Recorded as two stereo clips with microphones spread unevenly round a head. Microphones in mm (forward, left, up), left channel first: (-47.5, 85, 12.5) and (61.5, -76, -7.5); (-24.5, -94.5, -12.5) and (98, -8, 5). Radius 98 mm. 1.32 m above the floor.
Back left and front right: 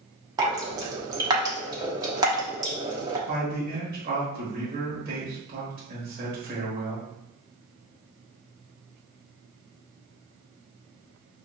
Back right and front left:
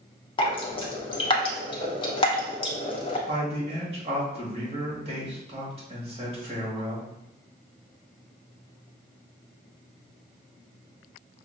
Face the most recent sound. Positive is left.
turn(degrees=-15)